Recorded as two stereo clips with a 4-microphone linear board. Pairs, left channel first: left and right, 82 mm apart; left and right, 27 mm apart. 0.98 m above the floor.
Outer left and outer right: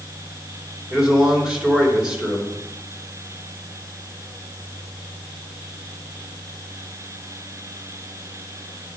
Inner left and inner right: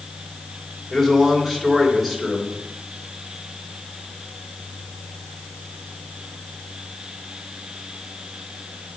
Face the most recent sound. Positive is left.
turn(degrees=-15)  # may be behind; listen again after turning